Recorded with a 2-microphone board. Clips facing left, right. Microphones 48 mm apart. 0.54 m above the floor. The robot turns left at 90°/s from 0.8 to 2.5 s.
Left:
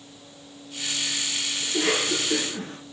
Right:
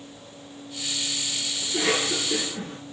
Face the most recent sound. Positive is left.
turn(degrees=130)